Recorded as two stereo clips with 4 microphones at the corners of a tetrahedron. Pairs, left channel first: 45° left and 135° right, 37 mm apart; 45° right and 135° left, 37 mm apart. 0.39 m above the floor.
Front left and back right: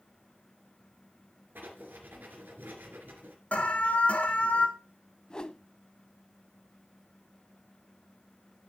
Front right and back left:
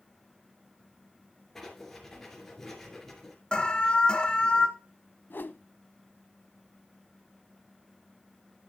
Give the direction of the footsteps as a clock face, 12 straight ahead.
I don't hear footsteps.